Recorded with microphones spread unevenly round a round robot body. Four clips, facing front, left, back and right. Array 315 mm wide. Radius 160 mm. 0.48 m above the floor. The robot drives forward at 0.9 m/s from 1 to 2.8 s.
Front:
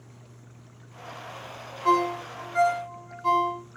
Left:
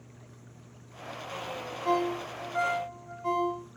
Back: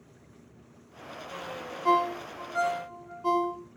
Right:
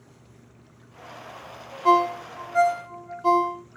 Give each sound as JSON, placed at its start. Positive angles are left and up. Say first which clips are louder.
{"t": 1.9, "sound": "a ringtone", "louder": "right 9 dB, front 2 dB", "azimuth_deg": -90, "distance_m": 1.5}